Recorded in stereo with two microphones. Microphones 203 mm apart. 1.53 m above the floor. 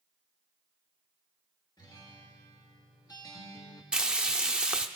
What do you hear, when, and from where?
1.8 s a guitar: 20° left (ahead or behind), 1.3 m
3.9 s frying: 5° right (ahead or behind), 0.6 m